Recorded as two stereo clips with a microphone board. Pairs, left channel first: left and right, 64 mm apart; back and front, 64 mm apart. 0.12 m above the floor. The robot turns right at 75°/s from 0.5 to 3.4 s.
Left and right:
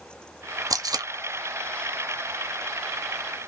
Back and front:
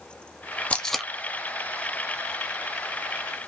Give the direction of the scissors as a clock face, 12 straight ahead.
No scissors in this recording.